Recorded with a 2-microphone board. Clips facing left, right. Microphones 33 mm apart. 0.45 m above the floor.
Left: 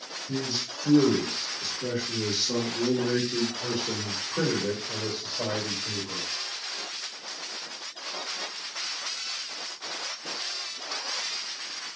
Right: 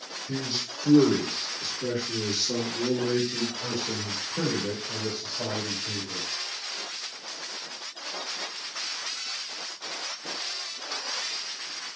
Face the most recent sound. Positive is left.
turn(degrees=60)  # may be behind; listen again after turning